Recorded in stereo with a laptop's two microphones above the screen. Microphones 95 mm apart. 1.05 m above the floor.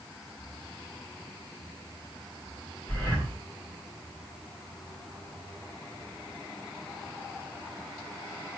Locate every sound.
2.9 s breathing: 10° left (ahead or behind), 3 m